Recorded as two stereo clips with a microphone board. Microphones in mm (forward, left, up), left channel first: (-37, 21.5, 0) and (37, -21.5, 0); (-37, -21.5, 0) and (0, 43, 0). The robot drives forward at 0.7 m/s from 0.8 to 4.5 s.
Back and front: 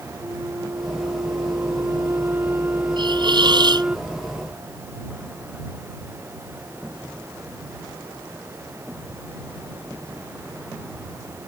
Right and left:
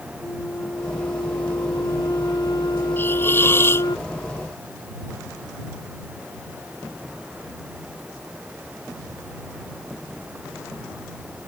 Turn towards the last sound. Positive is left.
turn(degrees=-65)